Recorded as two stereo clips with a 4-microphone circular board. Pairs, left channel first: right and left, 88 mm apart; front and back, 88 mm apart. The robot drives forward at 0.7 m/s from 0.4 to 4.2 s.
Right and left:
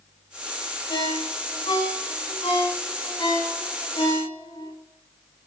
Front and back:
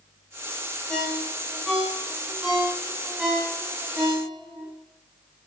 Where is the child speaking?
No child speaking in this recording.